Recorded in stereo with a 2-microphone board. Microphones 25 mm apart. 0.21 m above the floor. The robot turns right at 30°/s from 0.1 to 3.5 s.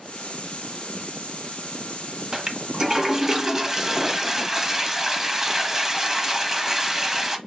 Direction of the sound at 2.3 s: 25° right (ahead or behind).